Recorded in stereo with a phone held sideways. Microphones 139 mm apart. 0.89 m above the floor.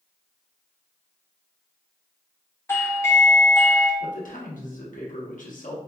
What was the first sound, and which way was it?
A doorbell, 20° left (ahead or behind).